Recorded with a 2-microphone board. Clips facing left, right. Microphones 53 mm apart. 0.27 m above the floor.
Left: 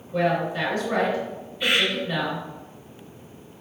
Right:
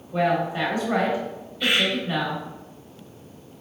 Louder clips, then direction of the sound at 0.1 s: Right 1 dB; 20° right (ahead or behind).